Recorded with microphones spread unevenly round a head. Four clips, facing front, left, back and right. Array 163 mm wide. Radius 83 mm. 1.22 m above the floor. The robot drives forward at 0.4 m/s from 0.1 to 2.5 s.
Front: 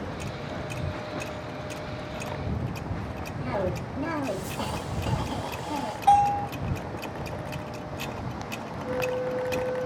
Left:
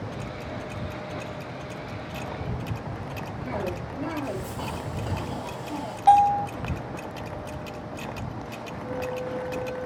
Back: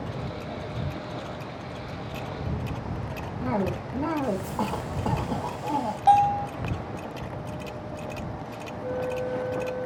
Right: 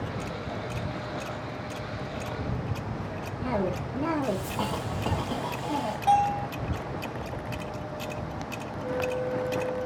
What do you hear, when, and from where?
3.4 s a cough: 155° right, 1.4 m
6.1 s a bell: 145° left, 3 m
8.8 s a flute: 160° right, 1.2 m